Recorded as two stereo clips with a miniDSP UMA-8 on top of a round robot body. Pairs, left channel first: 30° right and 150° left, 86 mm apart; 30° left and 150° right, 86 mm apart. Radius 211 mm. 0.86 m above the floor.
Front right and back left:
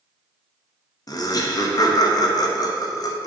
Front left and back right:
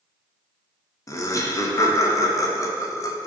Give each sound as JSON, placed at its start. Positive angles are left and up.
{"t": 1.1, "sound": "laughter", "azimuth_deg": -10, "distance_m": 0.8}